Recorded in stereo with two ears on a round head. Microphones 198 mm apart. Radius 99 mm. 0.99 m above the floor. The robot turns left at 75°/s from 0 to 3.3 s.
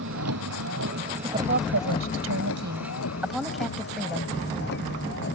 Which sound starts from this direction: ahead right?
A woman speaking, at 1.2 s.